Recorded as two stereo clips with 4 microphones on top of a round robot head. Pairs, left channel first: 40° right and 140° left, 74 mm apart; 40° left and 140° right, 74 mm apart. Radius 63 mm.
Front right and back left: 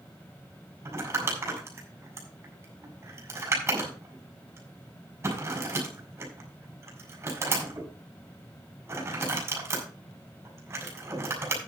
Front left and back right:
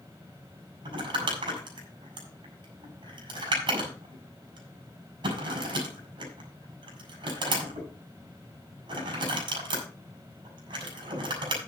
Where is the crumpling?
165° right, 5 m.